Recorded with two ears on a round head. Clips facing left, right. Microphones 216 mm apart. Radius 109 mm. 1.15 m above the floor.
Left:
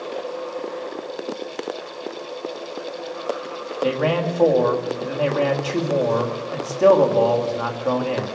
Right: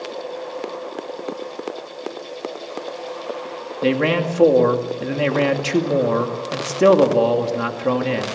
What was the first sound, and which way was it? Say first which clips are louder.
A man speaking: right 2 dB; 35° right (ahead or behind).